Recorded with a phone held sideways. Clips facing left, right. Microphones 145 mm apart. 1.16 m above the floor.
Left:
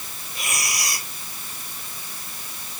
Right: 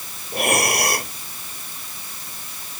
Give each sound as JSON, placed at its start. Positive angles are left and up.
{"t": 0.3, "sound": "breathing", "side_deg": -60}